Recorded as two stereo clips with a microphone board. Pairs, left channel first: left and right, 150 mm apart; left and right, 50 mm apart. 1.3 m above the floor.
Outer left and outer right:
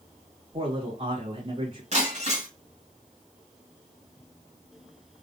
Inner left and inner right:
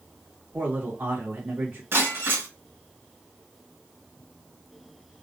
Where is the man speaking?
50° right (ahead or behind), 2.5 m.